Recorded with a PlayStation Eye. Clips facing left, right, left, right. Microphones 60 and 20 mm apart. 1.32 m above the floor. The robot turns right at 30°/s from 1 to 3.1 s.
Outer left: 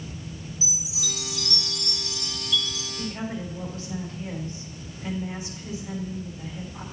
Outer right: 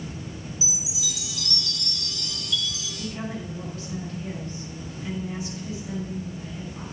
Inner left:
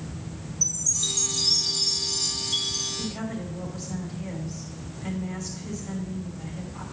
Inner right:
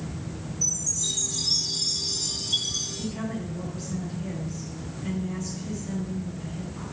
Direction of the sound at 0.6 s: 135° left.